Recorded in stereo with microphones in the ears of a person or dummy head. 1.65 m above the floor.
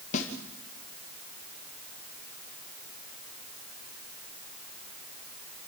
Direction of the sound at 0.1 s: 40° left (ahead or behind).